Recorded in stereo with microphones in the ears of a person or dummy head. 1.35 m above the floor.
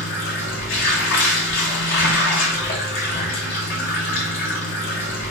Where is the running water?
50° left (ahead or behind), 0.8 m.